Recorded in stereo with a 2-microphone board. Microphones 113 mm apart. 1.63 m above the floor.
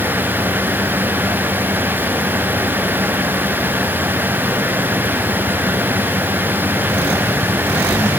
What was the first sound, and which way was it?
Only background noise.